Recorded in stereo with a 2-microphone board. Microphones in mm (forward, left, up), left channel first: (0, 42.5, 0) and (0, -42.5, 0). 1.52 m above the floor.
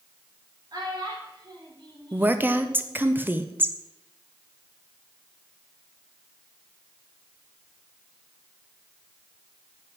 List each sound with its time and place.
0.7 s a child speaking: 55° right (ahead or behind), 3.5 m; by 3.0 s 80° right, 2.5 m
2.1 s a woman speaking: 20° right (ahead or behind), 0.8 m